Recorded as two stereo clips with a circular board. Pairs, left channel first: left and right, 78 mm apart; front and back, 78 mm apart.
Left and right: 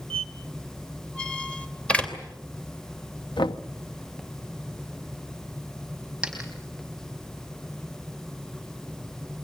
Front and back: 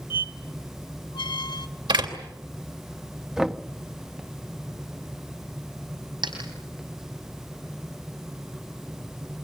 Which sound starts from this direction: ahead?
A squeak, at 0.1 s.